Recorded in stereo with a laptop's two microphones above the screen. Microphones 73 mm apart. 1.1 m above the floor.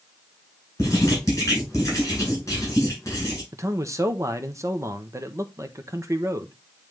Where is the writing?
40° left (ahead or behind), 5 m.